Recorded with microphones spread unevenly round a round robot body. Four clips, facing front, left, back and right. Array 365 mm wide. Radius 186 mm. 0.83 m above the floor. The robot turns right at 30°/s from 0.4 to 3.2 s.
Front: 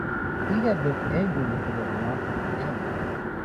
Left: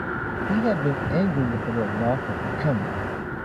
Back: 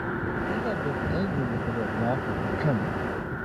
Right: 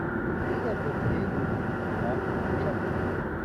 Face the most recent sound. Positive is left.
turn(degrees=135)